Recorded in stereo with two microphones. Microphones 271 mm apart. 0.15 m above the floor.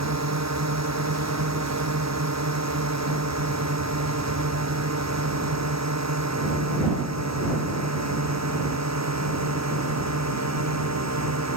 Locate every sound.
0.0 s a drone: 80° right